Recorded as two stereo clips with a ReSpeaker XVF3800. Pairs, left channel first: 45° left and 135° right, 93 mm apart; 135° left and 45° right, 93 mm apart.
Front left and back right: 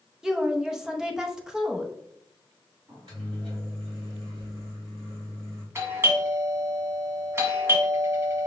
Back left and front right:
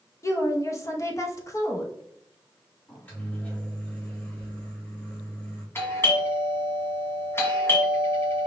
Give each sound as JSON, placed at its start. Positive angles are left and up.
{"t": 0.2, "sound": "a woman speaking", "azimuth_deg": 145, "distance_m": 0.8}
{"t": 2.9, "sound": "a microwave", "azimuth_deg": -155, "distance_m": 2.5}
{"t": 5.8, "sound": "a doorbell", "azimuth_deg": 180, "distance_m": 1.6}